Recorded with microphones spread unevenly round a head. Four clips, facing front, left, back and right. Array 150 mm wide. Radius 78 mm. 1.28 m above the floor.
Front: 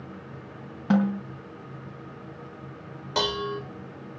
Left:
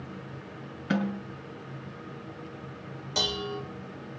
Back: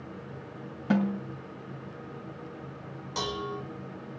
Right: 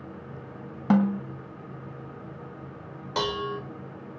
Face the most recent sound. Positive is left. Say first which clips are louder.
# right 4 dB, front 6 dB
turn(degrees=-25)